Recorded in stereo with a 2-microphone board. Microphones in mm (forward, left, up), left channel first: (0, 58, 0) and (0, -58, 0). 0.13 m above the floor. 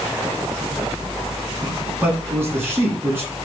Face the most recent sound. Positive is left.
turn(degrees=-20)  # may be behind; listen again after turning